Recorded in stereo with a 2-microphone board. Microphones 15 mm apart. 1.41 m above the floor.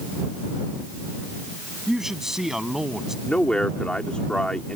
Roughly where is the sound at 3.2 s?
Left.